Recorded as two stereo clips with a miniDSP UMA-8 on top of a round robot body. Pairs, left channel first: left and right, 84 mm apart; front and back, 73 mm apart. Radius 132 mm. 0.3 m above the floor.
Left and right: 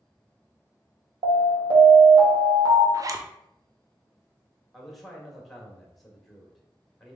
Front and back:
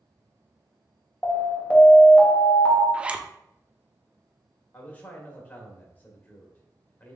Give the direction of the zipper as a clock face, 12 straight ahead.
4 o'clock.